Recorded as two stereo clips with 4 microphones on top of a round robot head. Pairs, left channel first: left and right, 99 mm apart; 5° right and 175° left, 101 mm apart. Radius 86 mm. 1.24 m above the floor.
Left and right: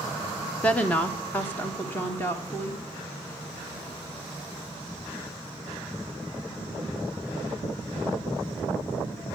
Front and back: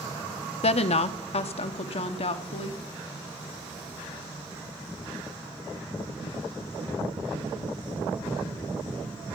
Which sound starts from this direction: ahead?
A woman speaking, at 0.6 s.